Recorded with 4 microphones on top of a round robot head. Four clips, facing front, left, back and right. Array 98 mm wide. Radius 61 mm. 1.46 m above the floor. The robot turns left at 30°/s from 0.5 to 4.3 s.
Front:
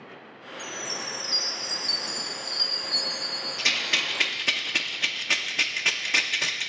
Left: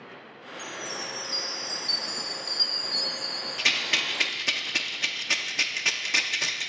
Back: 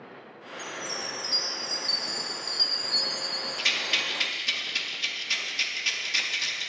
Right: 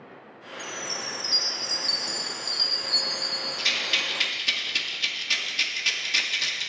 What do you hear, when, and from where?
0.6 s a chime: 40° right, 0.7 m; by 4.4 s 150° right, 0.7 m
3.6 s a rattle: 55° left, 0.6 m; by 6.7 s 30° left, 0.6 m